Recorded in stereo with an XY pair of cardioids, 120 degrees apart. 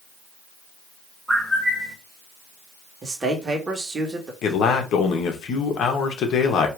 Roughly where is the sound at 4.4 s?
Ahead left.